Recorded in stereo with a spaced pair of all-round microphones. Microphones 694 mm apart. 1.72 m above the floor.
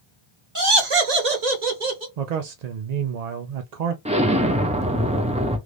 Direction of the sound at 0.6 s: 25° right (ahead or behind).